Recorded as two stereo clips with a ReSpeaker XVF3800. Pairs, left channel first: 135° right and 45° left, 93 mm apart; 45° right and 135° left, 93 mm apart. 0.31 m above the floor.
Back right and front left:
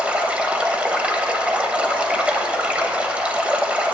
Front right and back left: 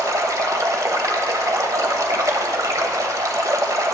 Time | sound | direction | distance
0.0 | running water | 115° left | 1.1 m